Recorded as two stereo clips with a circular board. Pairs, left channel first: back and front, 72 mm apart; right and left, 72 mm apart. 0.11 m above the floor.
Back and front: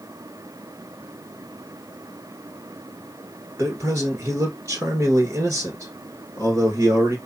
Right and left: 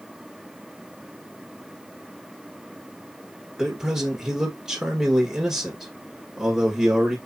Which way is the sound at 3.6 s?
15° left.